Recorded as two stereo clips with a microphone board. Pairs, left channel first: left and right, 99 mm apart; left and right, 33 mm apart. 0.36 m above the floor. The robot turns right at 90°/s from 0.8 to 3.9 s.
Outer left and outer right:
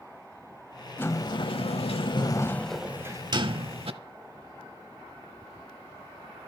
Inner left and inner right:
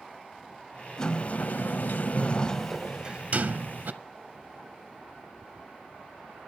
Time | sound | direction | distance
1.0 | a sliding door | 20° left | 0.7 m